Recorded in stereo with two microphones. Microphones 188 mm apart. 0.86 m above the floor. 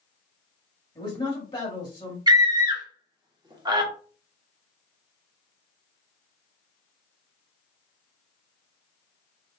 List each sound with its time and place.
0.9 s a man speaking: 25° left (ahead or behind), 1.4 m
2.3 s a scream: 20° right (ahead or behind), 1.1 m